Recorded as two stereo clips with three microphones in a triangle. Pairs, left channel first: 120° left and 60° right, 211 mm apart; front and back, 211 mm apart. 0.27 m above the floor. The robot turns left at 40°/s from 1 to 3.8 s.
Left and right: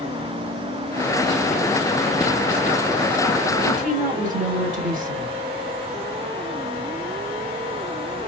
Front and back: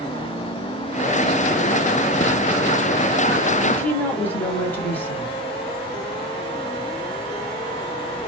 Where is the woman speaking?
70° right, 1.1 m; by 5.4 s 75° right, 1.1 m.